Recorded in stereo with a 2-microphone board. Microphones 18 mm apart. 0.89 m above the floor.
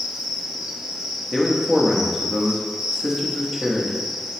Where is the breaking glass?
No breaking glass in this recording.